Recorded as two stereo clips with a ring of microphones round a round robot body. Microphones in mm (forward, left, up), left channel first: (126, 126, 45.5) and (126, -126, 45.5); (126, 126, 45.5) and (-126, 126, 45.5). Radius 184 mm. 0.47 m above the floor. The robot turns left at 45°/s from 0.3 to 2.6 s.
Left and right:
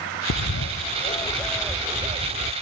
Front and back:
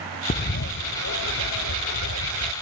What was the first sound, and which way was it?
A bird, 60° left.